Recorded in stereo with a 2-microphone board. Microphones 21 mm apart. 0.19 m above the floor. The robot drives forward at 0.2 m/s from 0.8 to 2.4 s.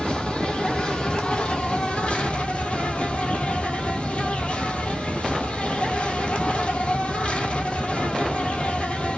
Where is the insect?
55° left (ahead or behind), 1.0 m; by 9.2 s 75° left (ahead or behind), 0.9 m.